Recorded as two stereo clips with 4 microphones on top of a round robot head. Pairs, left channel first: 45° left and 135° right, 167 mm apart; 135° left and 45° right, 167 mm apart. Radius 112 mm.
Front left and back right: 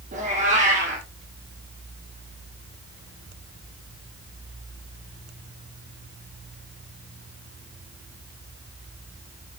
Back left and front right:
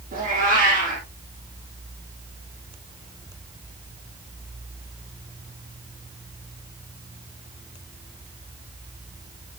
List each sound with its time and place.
0.1 s a cat meowing: 85° right, 6 m